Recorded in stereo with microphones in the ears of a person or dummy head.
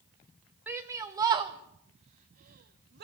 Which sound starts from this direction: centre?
A shout, at 0.7 s.